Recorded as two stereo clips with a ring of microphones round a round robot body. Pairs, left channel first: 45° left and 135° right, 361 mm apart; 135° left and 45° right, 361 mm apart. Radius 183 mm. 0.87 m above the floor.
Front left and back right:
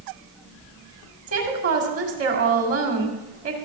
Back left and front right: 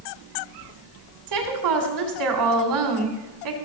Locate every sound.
1.3 s a woman speaking: 80° right, 2.5 m